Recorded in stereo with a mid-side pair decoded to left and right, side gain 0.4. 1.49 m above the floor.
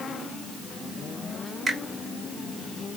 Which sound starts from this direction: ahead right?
A finger snap, at 1.7 s.